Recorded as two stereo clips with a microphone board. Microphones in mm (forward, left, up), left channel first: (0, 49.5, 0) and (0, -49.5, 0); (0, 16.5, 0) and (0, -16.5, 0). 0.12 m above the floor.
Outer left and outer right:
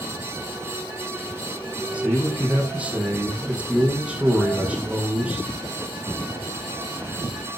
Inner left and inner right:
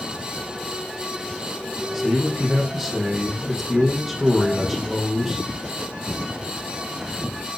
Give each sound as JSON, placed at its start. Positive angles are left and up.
{"t": 1.9, "sound": "a man speaking", "side_deg": -10, "distance_m": 4.5}